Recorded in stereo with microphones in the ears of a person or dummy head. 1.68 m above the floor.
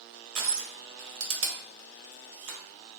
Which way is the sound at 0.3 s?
90° right.